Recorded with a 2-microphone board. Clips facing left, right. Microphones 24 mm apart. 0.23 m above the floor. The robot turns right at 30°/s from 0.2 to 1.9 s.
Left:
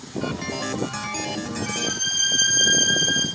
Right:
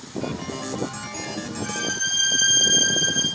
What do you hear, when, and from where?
1.6 s a violin: 5° left (ahead or behind), 2.5 m; by 3.2 s centre (ahead or behind), 2.5 m